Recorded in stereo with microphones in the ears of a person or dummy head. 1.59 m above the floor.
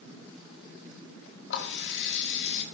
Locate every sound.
1.5 s a running tap: 65° left (ahead or behind), 1.7 m